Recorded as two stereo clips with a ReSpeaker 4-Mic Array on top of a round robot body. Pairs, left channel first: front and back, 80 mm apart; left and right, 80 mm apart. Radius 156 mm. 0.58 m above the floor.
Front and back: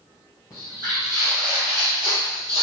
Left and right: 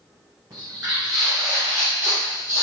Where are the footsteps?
45° right, 1.1 m; by 2.6 s 155° right, 0.7 m.